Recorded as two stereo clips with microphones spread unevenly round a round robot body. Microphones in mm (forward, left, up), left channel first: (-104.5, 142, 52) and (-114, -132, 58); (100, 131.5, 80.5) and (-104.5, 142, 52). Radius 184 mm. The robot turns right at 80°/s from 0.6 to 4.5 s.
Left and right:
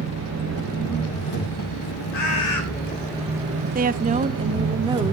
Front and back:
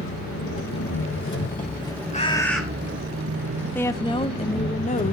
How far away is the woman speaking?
About 0.8 m.